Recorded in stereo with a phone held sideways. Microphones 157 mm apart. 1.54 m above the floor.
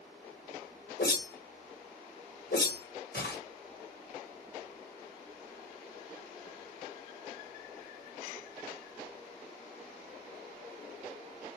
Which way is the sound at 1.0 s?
75° left (ahead or behind).